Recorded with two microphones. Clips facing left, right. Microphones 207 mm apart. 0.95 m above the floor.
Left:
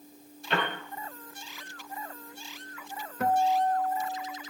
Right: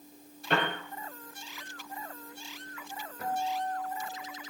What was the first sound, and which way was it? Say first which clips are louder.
A piano: right 1 dB; 55° right (ahead or behind).